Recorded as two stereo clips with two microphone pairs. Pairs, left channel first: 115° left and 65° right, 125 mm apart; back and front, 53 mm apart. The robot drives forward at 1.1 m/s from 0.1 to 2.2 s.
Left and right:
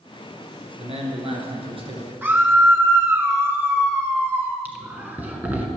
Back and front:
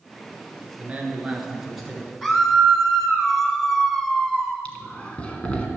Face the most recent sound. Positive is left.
turn(degrees=-130)